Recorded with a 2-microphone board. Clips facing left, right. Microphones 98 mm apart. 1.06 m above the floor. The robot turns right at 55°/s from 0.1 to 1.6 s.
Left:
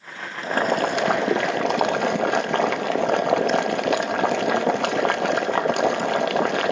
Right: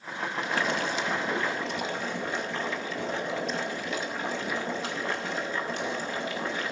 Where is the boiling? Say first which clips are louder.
Left 9 dB; 35° left, 0.6 m; by 6.7 s 100° left, 0.6 m.